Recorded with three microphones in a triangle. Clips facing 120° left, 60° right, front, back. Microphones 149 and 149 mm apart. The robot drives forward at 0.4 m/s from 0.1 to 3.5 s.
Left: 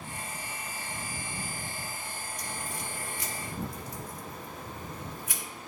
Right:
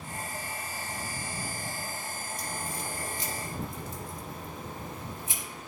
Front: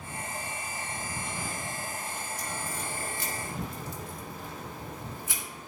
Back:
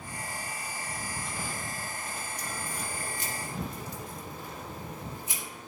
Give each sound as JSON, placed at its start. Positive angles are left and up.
{"t": 2.4, "sound": "a crack", "azimuth_deg": -110, "distance_m": 2.0}